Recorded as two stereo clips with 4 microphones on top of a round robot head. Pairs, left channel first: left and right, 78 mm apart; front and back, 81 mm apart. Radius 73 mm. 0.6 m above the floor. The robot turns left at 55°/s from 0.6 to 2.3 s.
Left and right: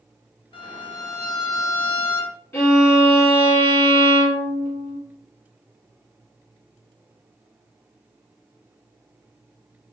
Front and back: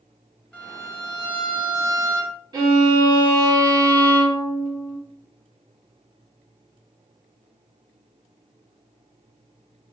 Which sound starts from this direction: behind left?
A violin, at 2.5 s.